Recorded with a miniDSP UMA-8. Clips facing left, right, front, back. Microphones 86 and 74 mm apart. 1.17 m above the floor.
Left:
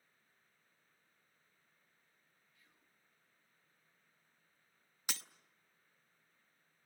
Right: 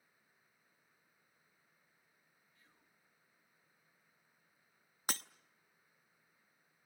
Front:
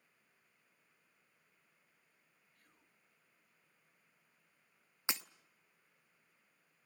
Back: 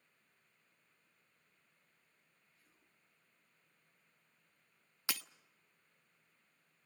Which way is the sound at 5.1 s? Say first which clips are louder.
Right 5 dB, front 2 dB; 60° right.